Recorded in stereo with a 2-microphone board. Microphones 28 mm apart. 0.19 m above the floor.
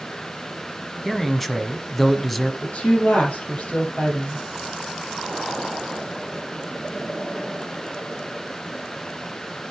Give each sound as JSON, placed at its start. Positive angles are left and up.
{"t": 1.1, "sound": "a man speaking", "side_deg": 5, "distance_m": 1.1}
{"t": 2.6, "sound": "a woman speaking", "side_deg": 50, "distance_m": 5.0}